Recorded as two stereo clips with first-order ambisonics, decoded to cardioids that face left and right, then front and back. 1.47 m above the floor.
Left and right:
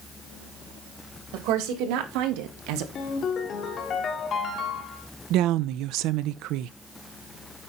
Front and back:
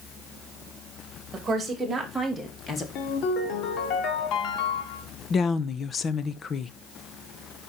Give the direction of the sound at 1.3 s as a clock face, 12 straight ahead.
4 o'clock.